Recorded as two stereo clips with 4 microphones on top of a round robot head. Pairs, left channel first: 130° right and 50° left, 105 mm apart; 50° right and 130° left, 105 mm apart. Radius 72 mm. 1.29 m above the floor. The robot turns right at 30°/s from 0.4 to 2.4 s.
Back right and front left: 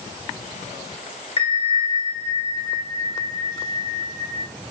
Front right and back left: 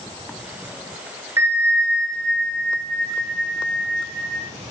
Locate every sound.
1.4 s a bell: 165° right, 0.7 m; by 4.4 s 130° right, 0.7 m